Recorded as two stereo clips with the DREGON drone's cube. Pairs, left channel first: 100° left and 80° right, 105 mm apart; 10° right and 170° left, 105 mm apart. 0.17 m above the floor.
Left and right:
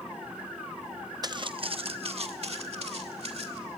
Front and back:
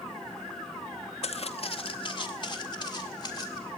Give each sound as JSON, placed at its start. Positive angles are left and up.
{"t": 1.2, "sound": "footsteps", "azimuth_deg": -25, "distance_m": 0.6}